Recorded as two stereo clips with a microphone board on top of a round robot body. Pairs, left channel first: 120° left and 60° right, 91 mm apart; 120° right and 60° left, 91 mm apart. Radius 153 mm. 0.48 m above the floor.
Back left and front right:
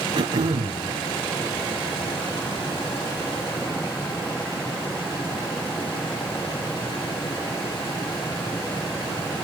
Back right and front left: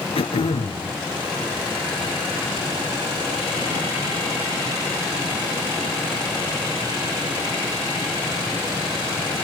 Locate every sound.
0.1 s throat clearing: 100° right, 4.5 m